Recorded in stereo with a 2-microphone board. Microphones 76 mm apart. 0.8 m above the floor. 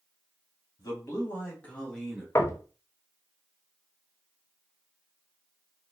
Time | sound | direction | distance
0.8 | a man speaking | 45° left (ahead or behind) | 1.5 m
2.4 | knocking | 35° left (ahead or behind) | 0.6 m